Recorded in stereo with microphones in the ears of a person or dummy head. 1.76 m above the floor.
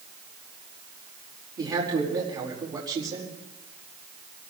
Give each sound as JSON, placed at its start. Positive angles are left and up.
{"t": 1.6, "sound": "a man speaking", "side_deg": -15, "distance_m": 4.5}